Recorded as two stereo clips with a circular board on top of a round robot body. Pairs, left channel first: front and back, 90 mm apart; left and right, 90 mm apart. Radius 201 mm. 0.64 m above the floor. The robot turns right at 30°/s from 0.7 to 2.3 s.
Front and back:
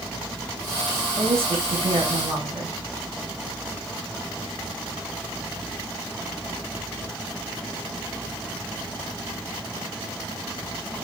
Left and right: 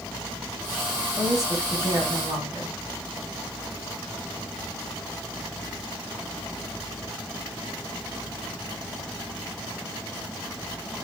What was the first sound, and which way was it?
A woman speaking, 175° left.